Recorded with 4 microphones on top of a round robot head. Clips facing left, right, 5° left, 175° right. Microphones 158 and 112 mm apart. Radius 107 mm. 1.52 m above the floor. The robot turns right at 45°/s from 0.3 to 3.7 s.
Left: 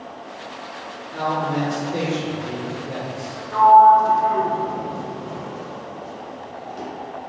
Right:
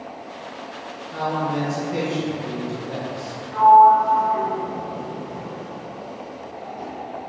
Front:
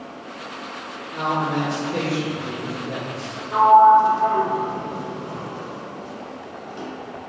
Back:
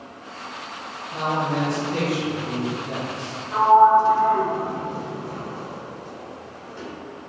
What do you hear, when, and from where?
1.1 s a man speaking: 130° right, 1.9 m; by 3.3 s 30° right, 1.9 m
3.5 s a sliding door: 70° left, 0.6 m; by 6.9 s 80° left, 0.6 m